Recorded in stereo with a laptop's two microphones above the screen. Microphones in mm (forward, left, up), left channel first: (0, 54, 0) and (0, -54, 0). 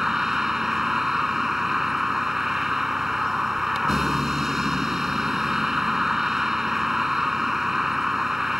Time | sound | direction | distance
0.0 | a vehicle | 5° right (ahead or behind) | ?